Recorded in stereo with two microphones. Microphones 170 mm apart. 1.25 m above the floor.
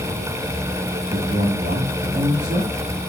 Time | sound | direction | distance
1.1 | a man speaking | 80° right | 2 m